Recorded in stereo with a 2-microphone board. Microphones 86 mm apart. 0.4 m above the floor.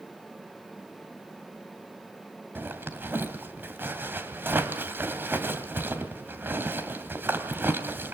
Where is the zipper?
20° right (ahead or behind), 2.5 m.